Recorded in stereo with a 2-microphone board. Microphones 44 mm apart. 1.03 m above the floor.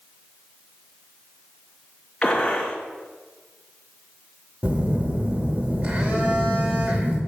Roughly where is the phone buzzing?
Right.